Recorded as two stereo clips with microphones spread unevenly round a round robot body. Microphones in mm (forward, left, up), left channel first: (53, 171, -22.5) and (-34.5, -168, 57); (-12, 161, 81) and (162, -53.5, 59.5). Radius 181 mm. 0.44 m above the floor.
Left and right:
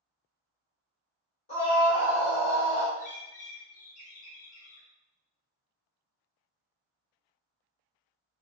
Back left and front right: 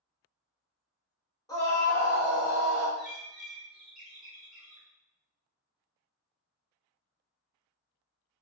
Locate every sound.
1.5 s a scream: 55° left, 1.5 m; by 2.9 s 35° left, 2 m
3.0 s a bird: 30° left, 1.4 m